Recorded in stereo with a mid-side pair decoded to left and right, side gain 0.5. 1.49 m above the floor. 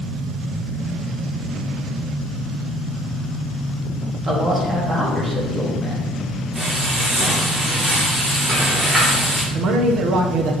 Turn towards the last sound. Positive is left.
turn(degrees=-65)